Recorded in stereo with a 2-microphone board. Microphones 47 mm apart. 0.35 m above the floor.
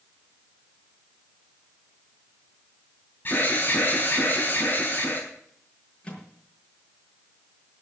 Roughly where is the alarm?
Left.